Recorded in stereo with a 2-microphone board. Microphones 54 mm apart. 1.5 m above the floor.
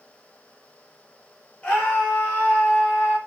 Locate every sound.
1.6 s a scream: 15° left (ahead or behind), 4.5 m; by 3.2 s 20° left (ahead or behind), 6 m